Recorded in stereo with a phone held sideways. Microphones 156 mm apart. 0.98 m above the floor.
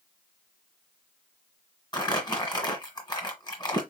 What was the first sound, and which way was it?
Crumpling, 25° left (ahead or behind).